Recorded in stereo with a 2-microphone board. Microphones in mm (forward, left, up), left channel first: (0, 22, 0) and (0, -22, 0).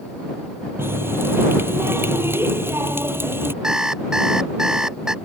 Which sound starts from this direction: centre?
An alarm clock, at 3.6 s.